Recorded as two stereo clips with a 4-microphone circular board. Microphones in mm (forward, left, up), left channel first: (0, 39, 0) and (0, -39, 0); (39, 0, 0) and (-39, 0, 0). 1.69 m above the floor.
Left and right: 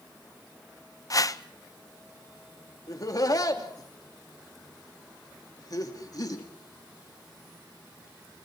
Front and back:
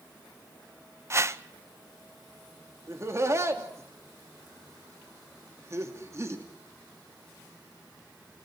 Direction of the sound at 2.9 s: 125° left.